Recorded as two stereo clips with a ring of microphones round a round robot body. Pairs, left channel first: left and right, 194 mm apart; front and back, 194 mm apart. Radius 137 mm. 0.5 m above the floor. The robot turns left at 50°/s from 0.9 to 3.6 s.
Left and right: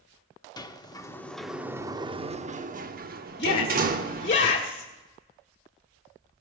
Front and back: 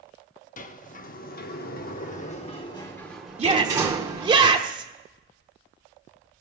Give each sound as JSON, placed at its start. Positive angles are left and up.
{"t": 0.6, "sound": "a sliding door", "azimuth_deg": 25, "distance_m": 0.8}
{"t": 3.4, "sound": "a shout", "azimuth_deg": 135, "distance_m": 1.0}